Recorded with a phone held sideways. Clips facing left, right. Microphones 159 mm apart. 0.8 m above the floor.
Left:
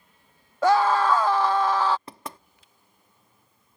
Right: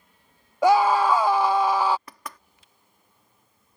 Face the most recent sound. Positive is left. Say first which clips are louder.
# left 2 dB
turn(degrees=25)  # may be behind; listen again after turning